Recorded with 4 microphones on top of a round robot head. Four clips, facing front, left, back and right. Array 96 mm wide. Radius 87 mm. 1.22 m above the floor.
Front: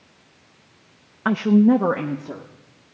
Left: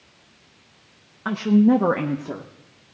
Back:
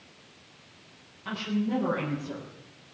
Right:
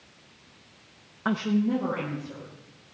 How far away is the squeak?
No squeak in this recording.